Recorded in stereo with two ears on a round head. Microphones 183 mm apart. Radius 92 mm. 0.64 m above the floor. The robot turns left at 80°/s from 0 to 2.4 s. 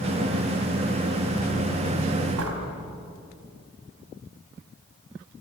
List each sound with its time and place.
2.4 s a door slam: 80° right, 4 m